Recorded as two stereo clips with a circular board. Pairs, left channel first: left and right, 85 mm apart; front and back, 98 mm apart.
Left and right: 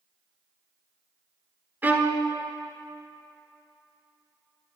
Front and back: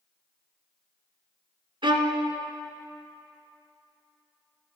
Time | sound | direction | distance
1.8 | a violin | 155° right | 0.8 m